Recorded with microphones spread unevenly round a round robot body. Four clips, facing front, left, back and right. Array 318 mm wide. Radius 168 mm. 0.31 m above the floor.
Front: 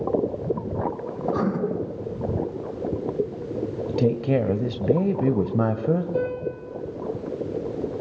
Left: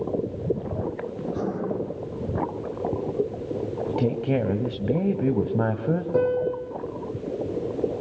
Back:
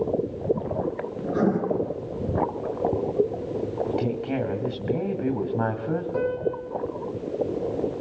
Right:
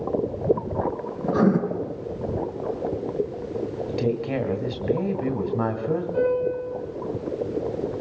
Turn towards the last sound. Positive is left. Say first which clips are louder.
# even, back 1 dB
turn(degrees=65)